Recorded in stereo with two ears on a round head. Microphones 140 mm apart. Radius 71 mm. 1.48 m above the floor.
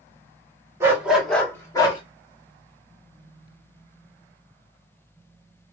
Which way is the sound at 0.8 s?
20° right (ahead or behind).